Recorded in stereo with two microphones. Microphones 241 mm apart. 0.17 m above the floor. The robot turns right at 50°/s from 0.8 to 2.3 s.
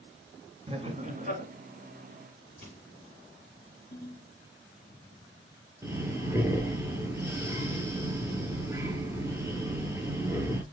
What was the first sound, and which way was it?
Laughter, 135° right.